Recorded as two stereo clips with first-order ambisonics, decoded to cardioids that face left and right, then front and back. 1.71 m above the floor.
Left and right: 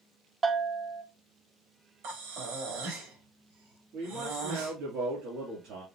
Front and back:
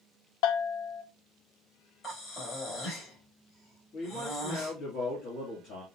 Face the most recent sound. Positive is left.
turn(degrees=-50)